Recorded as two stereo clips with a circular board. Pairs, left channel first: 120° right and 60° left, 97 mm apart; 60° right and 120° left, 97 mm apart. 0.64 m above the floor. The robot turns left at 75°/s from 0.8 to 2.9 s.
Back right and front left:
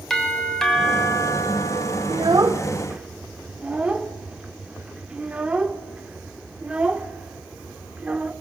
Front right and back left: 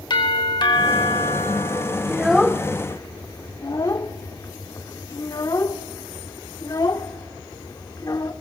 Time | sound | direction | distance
0.1 | a doorbell | 35° right | 4 m
2.1 | a child speaking | 45° left | 1.0 m